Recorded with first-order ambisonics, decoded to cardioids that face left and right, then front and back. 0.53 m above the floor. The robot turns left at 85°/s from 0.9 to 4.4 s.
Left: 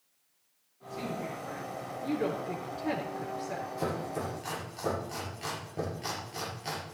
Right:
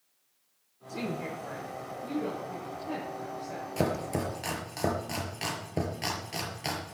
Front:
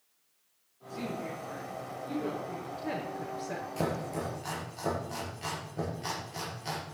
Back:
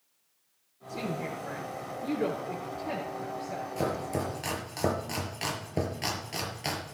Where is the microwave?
I don't hear a microwave.